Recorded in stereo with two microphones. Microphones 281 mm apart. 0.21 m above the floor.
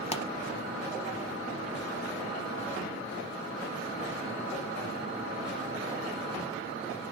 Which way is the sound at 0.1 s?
20° left (ahead or behind).